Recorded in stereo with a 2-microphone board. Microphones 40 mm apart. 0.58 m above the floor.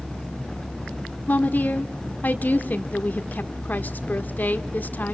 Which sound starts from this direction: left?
A woman speaking, at 1.3 s.